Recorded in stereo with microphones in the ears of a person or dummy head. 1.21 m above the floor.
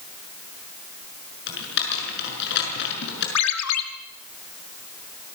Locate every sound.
1.5 s typing on a keyboard: 65° left (ahead or behind), 6.5 m
3.4 s a ringtone: 90° left, 2 m